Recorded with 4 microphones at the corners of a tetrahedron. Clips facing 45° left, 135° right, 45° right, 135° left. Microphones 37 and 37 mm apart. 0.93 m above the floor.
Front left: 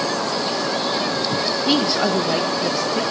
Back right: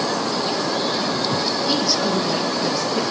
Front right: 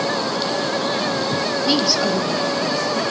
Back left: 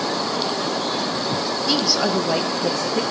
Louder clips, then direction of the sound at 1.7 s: Front left 4 dB, front right 1 dB; 20° left.